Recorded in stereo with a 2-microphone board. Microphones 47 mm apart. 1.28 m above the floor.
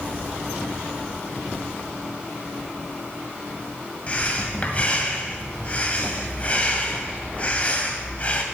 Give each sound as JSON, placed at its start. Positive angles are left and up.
{"t": 4.1, "sound": "breathing", "side_deg": 35, "distance_m": 2.0}